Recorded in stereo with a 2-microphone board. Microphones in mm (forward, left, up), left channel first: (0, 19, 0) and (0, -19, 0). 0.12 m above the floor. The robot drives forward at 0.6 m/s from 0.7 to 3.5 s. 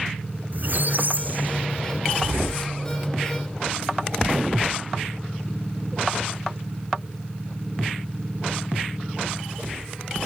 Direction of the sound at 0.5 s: 50° right (ahead or behind).